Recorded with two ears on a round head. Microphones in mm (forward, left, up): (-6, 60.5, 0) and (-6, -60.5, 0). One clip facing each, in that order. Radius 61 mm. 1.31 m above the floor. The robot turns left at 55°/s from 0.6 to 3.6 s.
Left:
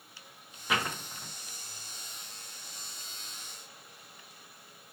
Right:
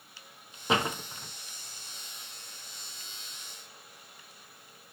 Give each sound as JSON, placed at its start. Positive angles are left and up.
{"t": 0.7, "sound": "a door slam", "side_deg": -25, "distance_m": 0.9}